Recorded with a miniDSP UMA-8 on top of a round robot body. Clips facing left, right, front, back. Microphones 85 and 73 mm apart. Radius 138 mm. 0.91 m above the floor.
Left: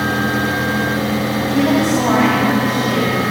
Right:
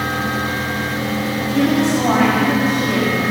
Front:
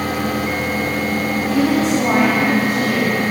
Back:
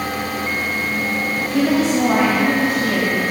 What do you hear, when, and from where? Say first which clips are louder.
1.4 s a woman speaking: left 1 dB, even; 120° left, 6.5 m